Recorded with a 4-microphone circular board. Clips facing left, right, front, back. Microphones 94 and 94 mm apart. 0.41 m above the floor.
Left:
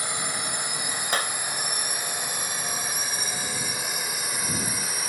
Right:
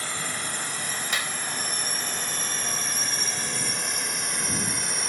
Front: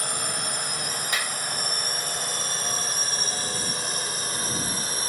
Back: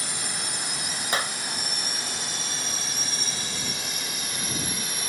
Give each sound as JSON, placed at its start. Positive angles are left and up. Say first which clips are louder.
{"t": 0.0, "sound": "a drone", "louder": "left 1 dB, front 3 dB", "azimuth_deg": 20}
{"t": 1.1, "sound": "a clap", "louder": "left 5 dB, back 4 dB", "azimuth_deg": 130}